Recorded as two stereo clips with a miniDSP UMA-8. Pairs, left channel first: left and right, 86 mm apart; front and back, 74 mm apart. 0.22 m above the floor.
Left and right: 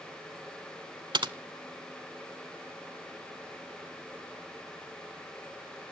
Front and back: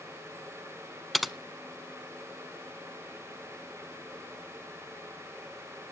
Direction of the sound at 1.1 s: 90° right.